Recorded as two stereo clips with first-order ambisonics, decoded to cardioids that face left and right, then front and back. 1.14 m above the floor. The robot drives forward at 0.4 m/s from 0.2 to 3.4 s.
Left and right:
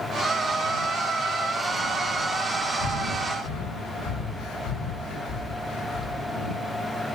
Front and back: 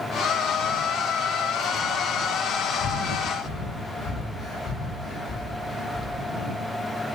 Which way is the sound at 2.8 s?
75° left.